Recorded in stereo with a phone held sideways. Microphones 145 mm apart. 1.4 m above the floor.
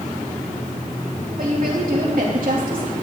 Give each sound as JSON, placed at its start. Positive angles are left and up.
{"t": 1.4, "sound": "a woman speaking", "side_deg": -75, "distance_m": 3.0}